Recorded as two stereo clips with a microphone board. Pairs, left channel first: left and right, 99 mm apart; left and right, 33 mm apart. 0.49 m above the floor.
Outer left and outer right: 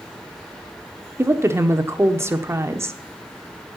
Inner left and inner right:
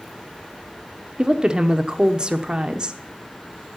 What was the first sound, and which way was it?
A woman speaking, 30° right (ahead or behind).